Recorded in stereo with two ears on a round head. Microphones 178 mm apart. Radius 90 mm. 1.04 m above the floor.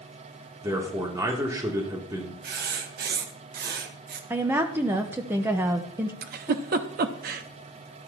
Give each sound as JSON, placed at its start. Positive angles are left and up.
{"t": 0.6, "sound": "a man speaking", "side_deg": -15, "distance_m": 2.5}
{"t": 2.4, "sound": "writing", "side_deg": -50, "distance_m": 1.3}
{"t": 4.3, "sound": "a woman speaking", "side_deg": -10, "distance_m": 0.8}
{"t": 6.2, "sound": "a giggle", "side_deg": -50, "distance_m": 0.9}